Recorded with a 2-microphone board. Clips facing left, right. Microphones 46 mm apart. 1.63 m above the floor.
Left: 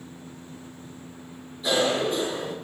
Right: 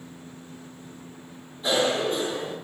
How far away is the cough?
About 1.3 m.